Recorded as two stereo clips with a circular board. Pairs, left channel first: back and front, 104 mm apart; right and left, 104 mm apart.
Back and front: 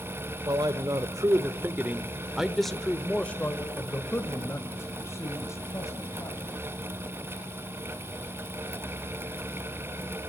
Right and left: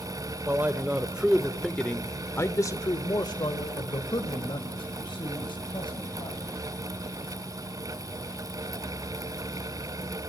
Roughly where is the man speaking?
Ahead left.